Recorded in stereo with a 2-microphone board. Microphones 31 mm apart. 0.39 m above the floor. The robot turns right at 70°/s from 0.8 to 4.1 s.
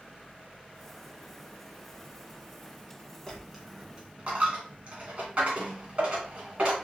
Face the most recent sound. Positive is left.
turn(degrees=-40)  # may be behind; listen again after turning